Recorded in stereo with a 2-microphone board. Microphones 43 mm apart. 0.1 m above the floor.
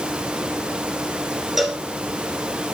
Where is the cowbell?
5° right (ahead or behind), 1.5 m.